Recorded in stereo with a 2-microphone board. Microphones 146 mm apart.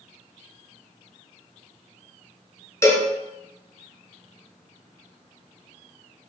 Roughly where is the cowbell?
Left.